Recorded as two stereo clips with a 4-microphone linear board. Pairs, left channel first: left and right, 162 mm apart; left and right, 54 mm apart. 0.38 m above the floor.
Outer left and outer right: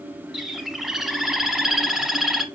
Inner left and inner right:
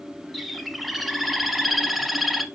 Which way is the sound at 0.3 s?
Centre (ahead or behind).